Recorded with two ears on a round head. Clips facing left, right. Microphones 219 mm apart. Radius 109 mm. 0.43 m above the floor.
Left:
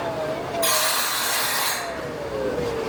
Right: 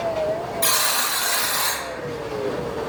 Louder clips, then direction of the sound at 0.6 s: Left 2 dB; 30° right (ahead or behind).